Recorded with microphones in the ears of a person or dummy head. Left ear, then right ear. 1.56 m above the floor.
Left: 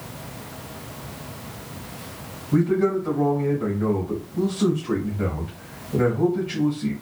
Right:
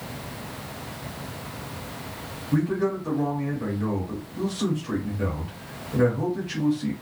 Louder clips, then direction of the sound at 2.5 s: Left 5 dB; 5° right (ahead or behind).